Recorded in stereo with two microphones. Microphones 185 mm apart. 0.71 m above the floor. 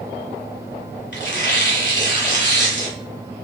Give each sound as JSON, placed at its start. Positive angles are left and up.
{"t": 1.1, "sound": "tearing paper", "side_deg": 75, "distance_m": 1.5}